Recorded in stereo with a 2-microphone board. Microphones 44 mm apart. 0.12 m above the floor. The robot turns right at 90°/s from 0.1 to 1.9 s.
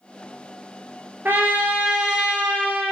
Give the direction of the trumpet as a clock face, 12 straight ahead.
3 o'clock.